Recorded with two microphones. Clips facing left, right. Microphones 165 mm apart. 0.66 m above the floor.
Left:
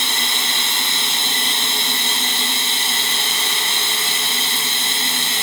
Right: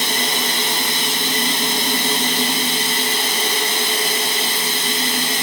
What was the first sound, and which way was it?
Running water, 25° left (ahead or behind).